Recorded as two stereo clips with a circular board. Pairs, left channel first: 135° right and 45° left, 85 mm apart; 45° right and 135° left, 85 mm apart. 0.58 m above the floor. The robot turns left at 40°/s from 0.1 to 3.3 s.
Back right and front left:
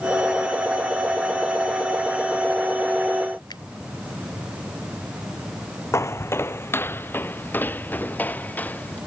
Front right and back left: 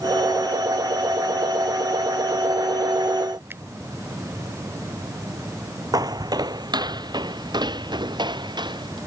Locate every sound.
3.5 s a finger snap: 165° right
5.9 s footsteps: 170° left; by 9.0 s 155° left